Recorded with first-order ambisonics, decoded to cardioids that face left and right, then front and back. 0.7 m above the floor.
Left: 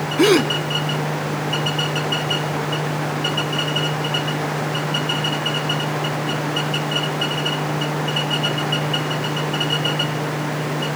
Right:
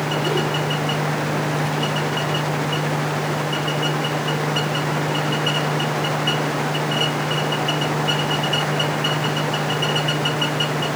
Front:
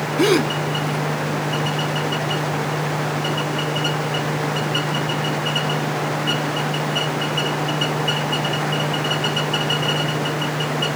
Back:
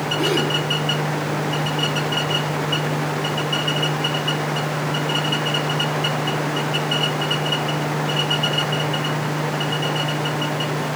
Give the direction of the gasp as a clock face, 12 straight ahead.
10 o'clock.